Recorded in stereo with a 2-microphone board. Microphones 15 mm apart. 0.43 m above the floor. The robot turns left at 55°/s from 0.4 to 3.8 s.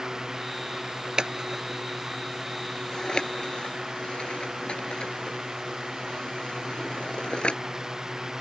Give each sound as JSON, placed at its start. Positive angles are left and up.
{"t": 1.2, "sound": "scissors", "side_deg": -50}